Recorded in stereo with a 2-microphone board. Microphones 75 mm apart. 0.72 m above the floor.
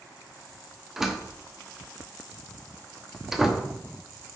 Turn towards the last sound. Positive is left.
turn(degrees=-5)  # may be behind; listen again after turning